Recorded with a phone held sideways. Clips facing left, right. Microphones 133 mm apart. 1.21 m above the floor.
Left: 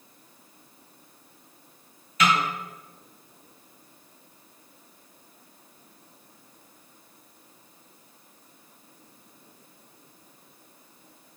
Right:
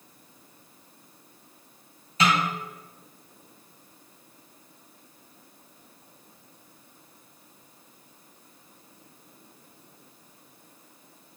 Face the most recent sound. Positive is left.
turn(degrees=-30)  # may be behind; listen again after turning